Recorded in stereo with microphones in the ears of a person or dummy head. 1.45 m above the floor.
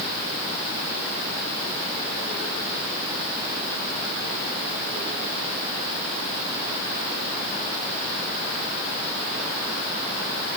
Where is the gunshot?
I don't hear a gunshot.